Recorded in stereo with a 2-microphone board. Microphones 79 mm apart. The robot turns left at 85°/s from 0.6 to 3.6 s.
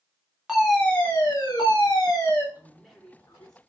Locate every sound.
0.5 s a fire alarm: 170° right, 4 m; by 2.5 s 30° left, 4 m
2.5 s a man speaking: 155° right, 2.5 m; by 3.6 s 120° left, 2.5 m